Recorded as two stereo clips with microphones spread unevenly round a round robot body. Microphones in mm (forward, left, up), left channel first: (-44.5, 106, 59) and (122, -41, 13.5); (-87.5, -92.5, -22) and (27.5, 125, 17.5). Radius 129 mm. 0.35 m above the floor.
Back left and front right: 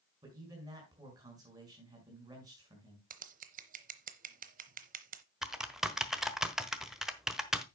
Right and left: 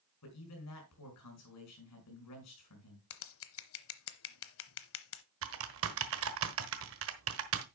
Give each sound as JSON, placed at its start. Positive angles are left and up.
{"t": 0.2, "sound": "a man speaking", "azimuth_deg": -110, "distance_m": 4.5}
{"t": 3.1, "sound": "scissors", "azimuth_deg": -90, "distance_m": 0.7}
{"t": 5.4, "sound": "typing on a keyboard", "azimuth_deg": 35, "distance_m": 1.2}